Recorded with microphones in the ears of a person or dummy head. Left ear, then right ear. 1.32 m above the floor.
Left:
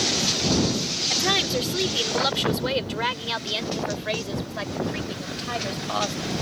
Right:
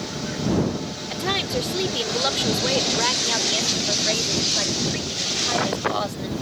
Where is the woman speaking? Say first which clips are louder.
Left 1 dB; 15° left (ahead or behind); by 6.3 s centre (ahead or behind).